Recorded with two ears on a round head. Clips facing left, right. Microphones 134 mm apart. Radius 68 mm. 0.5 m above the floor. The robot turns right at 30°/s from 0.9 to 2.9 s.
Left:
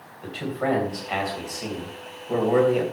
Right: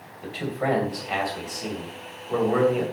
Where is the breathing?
I don't hear breathing.